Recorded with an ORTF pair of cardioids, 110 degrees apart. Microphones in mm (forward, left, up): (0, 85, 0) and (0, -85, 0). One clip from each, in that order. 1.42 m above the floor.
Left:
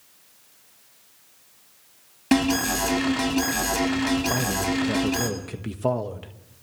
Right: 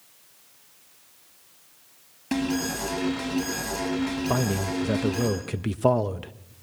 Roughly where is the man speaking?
Ahead.